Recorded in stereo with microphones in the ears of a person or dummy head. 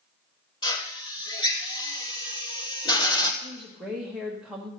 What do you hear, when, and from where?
0.6 s a drill: 25° left (ahead or behind), 1.1 m
3.4 s a woman speaking: centre (ahead or behind), 1.3 m